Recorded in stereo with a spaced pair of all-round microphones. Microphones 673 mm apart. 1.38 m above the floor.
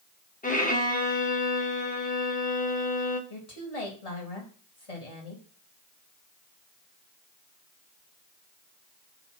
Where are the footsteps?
No footsteps in this recording.